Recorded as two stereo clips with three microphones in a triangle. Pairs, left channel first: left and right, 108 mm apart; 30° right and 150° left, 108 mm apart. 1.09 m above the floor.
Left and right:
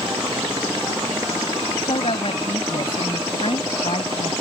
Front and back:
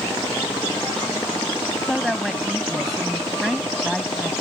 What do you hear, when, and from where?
1.8 s a woman speaking: 60° left